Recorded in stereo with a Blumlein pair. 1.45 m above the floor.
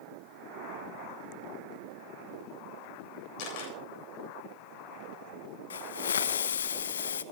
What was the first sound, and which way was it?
A camera shutter, 45° left.